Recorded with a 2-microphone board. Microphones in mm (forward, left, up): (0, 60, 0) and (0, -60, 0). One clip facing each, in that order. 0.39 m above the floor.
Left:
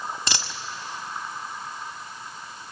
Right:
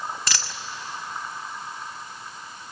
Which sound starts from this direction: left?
A dropped coin, at 0.3 s.